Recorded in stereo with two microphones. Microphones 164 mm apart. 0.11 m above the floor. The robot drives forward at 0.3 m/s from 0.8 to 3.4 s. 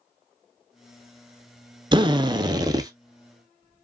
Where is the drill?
30° right (ahead or behind), 0.6 m; by 2.9 s 25° right (ahead or behind), 0.8 m.